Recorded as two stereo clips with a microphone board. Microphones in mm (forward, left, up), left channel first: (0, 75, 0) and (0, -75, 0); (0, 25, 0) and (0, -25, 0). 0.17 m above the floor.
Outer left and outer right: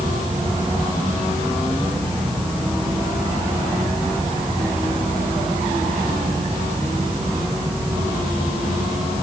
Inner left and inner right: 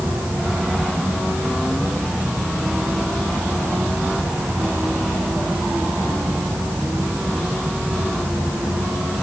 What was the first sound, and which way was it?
Only background noise.